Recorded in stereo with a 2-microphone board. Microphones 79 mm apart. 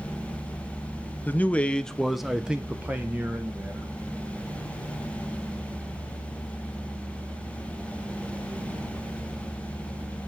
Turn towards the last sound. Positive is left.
turn(degrees=-25)  # may be behind; listen again after turning